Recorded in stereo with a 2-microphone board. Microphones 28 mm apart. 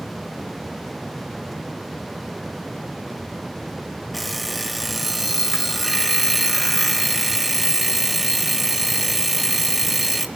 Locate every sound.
4.1 s an alarm clock: centre (ahead or behind), 1.3 m